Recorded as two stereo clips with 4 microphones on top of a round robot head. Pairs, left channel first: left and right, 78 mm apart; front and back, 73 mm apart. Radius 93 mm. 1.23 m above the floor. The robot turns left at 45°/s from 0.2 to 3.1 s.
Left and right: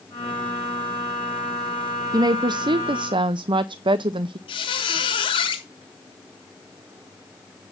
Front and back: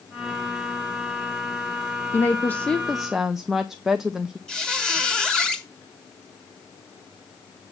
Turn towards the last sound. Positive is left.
turn(degrees=85)